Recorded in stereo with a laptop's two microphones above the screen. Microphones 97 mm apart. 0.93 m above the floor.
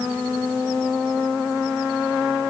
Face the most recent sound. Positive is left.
No sound to turn to.